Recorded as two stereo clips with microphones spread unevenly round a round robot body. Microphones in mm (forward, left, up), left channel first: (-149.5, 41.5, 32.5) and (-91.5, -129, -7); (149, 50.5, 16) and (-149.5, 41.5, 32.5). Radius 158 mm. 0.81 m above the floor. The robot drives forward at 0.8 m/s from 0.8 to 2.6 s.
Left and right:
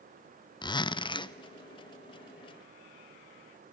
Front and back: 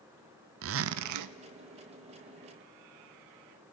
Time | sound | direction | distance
0.6 | a zipper | straight behind | 0.5 m